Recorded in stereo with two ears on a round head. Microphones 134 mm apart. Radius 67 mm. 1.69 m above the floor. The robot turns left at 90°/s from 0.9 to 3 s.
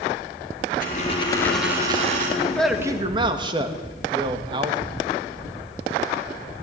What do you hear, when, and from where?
0.8 s a dropped coin: 60° left, 5.5 m; by 2.3 s 65° right, 5.5 m
2.4 s a man speaking: 25° left, 2.5 m; by 4.8 s 30° right, 2.5 m